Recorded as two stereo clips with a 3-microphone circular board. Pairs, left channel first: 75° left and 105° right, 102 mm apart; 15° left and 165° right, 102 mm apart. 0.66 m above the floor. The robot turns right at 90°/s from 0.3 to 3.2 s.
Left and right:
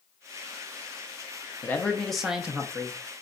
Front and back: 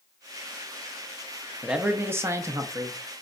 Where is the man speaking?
115° left, 0.5 m; by 3.0 s 125° right, 0.5 m.